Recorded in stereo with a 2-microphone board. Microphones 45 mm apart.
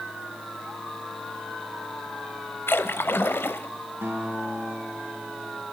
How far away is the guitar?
About 4.5 m.